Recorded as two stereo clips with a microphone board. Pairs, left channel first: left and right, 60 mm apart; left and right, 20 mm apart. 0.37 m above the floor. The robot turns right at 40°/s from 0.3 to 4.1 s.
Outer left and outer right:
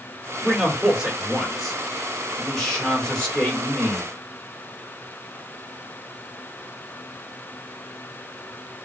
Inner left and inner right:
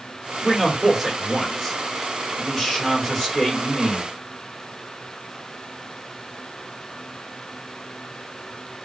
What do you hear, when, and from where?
0.4 s a man speaking: 15° right (ahead or behind), 1.2 m; by 4.0 s 20° left (ahead or behind), 1.2 m